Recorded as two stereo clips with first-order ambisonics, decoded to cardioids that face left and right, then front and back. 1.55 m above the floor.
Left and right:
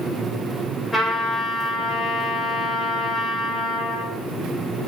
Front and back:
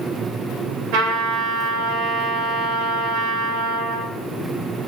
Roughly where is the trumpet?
Behind.